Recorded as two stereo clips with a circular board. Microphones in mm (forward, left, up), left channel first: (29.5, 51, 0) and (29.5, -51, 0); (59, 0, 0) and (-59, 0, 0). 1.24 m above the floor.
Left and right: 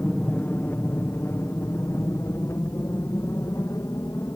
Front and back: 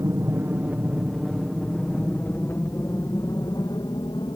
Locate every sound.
0.0 s an aircraft: 145° left; by 4.4 s 35° left